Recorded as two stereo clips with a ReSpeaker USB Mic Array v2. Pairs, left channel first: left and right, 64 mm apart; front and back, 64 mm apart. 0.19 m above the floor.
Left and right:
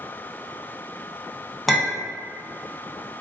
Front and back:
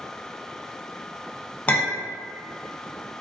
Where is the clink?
5° left, 0.6 m.